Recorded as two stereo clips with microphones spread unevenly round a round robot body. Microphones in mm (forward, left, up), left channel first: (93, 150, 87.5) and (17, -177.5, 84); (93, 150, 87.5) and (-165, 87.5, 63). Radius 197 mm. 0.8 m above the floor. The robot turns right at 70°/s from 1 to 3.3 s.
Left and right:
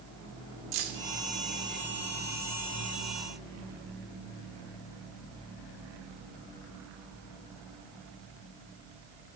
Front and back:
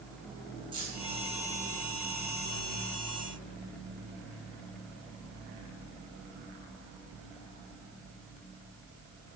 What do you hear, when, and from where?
0.7 s keys jangling: 90° right, 1.6 m; by 1.0 s 85° right, 1.6 m